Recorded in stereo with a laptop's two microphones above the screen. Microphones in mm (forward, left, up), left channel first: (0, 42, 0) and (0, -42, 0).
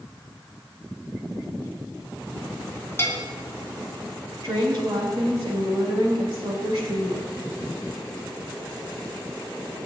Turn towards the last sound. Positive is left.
turn(degrees=-45)  # may be behind; listen again after turning